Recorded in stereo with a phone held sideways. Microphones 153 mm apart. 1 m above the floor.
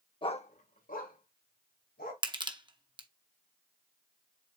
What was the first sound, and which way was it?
A dog barking, 35° left (ahead or behind).